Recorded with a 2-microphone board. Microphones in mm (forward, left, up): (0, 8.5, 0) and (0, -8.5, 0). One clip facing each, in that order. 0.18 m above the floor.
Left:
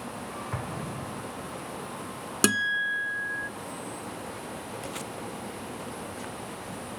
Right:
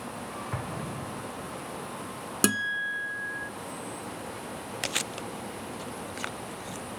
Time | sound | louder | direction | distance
0.5 | an explosion | even | 20° left (ahead or behind) | ?
2.4 | a guitar | left 3 dB | 10° left (ahead or behind) | ?
4.8 | chewing | right 4 dB | 70° right (ahead or behind) | ?